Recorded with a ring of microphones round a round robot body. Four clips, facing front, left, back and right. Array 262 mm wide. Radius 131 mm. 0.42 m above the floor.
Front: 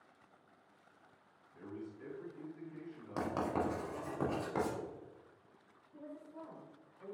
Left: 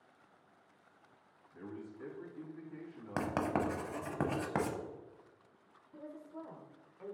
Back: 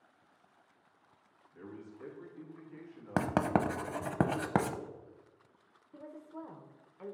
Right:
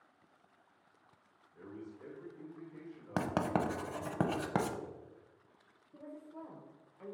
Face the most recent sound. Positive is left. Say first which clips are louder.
# left 1 dB, back 3 dB
turn(degrees=170)